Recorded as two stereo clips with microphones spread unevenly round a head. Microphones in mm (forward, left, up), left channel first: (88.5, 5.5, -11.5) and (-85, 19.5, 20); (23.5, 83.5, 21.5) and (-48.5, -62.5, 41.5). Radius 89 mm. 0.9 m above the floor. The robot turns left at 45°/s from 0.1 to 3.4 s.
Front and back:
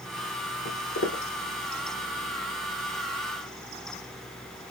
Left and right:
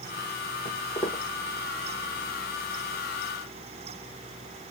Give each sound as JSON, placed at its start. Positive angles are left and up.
{"t": 0.7, "sound": "footsteps", "azimuth_deg": 0, "distance_m": 1.5}